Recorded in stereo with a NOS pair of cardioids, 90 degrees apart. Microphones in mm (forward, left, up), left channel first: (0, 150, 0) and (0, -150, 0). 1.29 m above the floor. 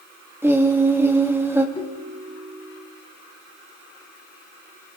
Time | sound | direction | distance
0.4 | singing | 10° right | 3 m
1.8 | a ringtone | 20° left | 3.5 m